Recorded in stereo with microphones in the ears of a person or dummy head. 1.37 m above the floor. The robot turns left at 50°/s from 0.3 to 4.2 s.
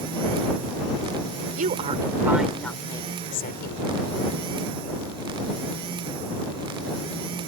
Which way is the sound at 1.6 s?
135° right.